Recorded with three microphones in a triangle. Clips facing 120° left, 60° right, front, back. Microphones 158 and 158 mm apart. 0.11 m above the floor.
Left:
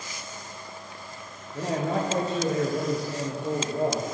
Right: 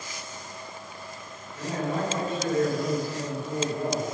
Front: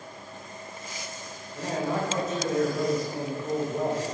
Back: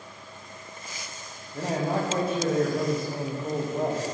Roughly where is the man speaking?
Behind left.